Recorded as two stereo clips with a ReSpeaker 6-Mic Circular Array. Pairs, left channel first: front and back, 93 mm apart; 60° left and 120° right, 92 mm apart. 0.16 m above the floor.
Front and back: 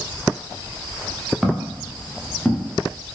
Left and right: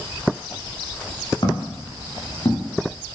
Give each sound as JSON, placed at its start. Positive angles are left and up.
{"t": 1.4, "sound": "footsteps", "azimuth_deg": 90, "distance_m": 6.5}